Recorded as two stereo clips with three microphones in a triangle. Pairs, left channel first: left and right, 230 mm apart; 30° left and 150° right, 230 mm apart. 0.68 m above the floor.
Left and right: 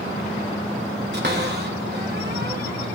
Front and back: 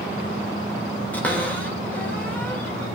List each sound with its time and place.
1.1 s a cupboard door: 55° right, 2.5 m